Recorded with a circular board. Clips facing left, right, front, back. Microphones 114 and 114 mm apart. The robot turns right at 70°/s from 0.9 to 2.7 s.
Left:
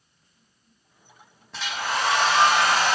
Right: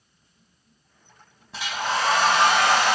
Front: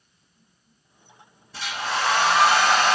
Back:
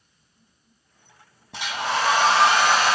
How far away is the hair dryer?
About 0.9 m.